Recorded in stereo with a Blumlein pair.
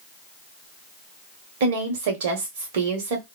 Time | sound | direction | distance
1.6 | a woman speaking | 55° right | 1.1 m